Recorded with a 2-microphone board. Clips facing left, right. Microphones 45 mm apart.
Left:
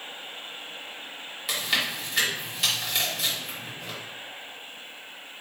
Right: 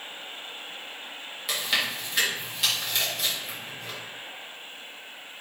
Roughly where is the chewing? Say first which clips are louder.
Even; centre.